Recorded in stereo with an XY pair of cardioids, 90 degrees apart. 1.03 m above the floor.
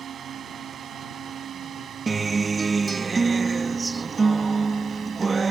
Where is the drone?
65° right.